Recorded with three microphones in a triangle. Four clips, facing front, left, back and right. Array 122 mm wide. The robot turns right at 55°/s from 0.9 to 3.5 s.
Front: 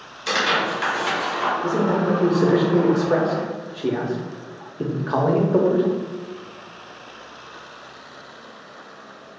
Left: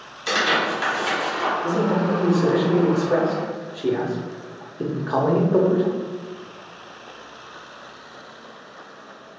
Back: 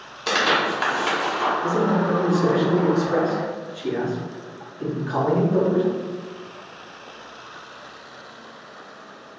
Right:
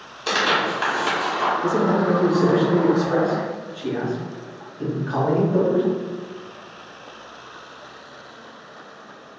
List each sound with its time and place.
0.3 s tearing paper: 150° right, 1.2 m; by 1.5 s 115° right, 1.2 m
1.6 s a man speaking: 70° right, 0.8 m; by 5.8 s 35° left, 0.8 m